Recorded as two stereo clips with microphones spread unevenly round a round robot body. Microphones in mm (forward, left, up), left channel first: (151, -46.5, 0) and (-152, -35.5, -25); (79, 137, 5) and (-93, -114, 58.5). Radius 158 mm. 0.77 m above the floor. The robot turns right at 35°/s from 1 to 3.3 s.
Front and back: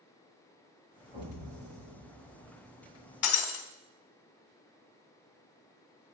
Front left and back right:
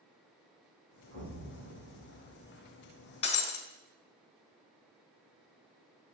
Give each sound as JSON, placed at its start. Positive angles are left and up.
{"t": 1.1, "sound": "an explosion", "azimuth_deg": -115, "distance_m": 9.0}
{"t": 3.2, "sound": "breaking glass", "azimuth_deg": -20, "distance_m": 2.0}